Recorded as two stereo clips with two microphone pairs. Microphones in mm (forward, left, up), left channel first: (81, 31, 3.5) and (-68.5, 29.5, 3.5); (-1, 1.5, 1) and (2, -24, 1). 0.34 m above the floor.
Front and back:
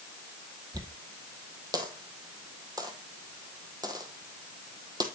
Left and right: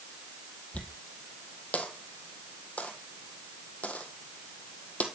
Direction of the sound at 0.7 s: 115° left.